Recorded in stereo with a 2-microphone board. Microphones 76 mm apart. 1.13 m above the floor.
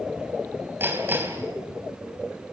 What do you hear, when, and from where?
0.8 s hammering: 25° right (ahead or behind), 4 m